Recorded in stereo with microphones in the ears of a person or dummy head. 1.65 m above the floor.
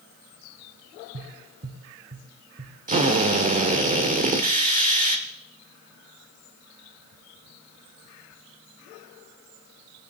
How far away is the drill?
About 1.1 m.